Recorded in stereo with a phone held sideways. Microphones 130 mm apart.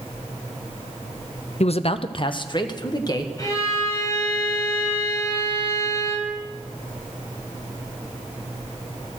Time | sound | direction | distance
1.6 | a man speaking | 55° left (ahead or behind) | 0.5 m
3.4 | a violin | 30° left (ahead or behind) | 6.5 m